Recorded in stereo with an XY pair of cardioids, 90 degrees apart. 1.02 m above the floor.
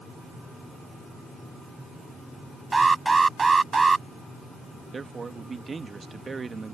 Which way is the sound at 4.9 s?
40° right.